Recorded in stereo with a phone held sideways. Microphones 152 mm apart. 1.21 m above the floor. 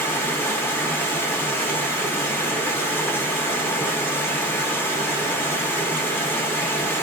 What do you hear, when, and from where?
0.0 s running water: 15° left (ahead or behind), 0.9 m